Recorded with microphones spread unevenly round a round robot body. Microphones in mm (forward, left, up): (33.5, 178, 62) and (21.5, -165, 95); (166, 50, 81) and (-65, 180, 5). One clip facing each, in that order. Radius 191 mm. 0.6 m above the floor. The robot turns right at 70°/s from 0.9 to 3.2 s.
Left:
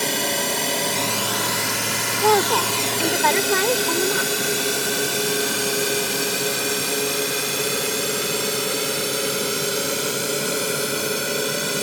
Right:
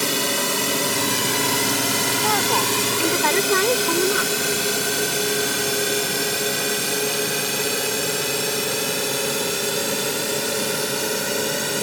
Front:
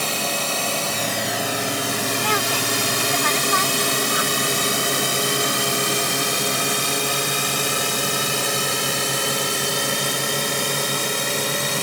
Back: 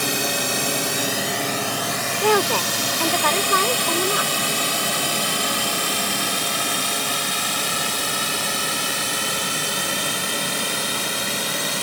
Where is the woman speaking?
120° left; by 4.6 s 170° right.